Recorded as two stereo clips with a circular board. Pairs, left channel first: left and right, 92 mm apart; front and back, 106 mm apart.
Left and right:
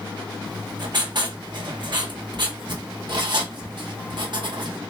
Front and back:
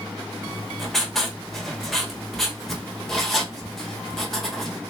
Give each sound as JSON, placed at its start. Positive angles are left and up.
{"t": 0.5, "sound": "writing", "azimuth_deg": -85, "distance_m": 1.1}